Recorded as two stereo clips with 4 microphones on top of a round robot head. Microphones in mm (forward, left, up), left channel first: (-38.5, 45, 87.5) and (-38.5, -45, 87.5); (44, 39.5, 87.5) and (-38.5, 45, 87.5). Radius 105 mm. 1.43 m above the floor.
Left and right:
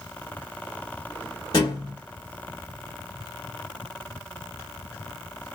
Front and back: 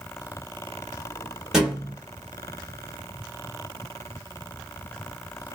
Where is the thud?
95° left, 0.7 m.